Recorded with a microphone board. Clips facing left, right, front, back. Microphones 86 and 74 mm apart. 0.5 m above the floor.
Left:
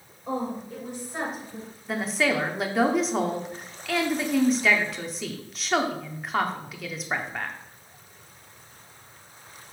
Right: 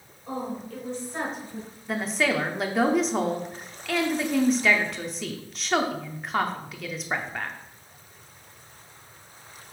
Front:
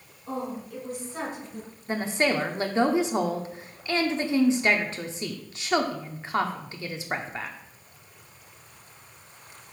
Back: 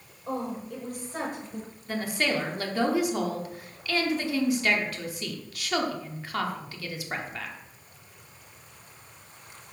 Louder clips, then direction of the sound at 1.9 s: Even, front 3 dB; 5° left.